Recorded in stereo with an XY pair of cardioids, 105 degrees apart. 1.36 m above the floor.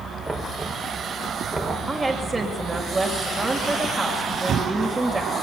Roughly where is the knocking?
Ahead.